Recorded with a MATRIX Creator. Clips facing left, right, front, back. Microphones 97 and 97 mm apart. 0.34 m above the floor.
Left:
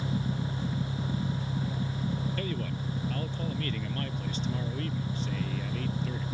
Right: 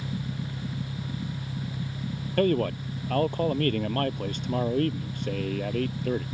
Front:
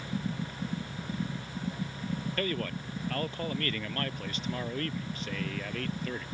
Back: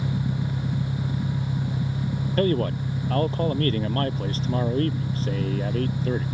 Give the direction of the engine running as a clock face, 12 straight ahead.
6 o'clock.